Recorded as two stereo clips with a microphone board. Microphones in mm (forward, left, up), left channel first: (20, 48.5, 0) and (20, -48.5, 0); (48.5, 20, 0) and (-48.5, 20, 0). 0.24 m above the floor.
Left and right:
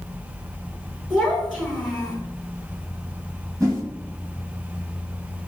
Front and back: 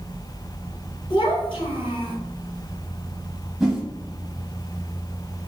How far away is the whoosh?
About 1.5 m.